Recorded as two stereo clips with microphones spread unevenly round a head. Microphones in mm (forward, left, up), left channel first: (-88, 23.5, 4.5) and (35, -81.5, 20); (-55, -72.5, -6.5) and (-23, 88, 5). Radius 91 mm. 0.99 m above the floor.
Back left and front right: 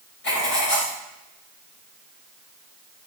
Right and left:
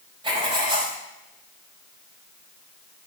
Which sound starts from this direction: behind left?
Writing, at 0.2 s.